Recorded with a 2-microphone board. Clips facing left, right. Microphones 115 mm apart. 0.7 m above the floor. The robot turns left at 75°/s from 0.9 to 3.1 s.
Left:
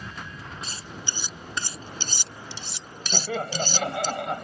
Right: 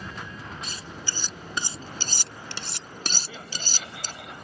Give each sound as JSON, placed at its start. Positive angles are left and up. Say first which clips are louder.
{"t": 0.6, "sound": "cutlery clinking", "louder": "even", "side_deg": 35}
{"t": 3.1, "sound": "laughter", "louder": "left 11 dB", "side_deg": 75}